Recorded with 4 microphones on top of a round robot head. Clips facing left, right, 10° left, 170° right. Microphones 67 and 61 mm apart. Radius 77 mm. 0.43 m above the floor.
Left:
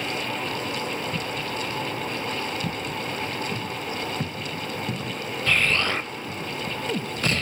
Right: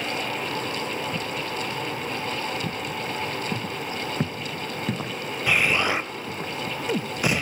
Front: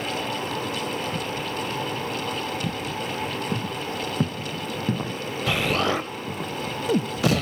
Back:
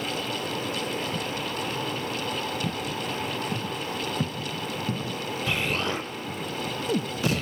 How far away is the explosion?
About 0.5 m.